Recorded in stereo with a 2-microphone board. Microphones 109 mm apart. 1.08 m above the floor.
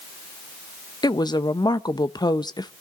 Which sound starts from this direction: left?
A woman speaking, at 1.0 s.